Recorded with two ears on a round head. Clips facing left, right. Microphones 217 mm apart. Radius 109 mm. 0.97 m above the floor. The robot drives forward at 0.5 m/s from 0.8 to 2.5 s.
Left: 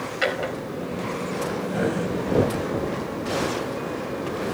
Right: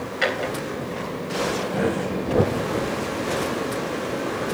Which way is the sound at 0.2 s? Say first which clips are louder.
Right 1 dB; 5° left (ahead or behind).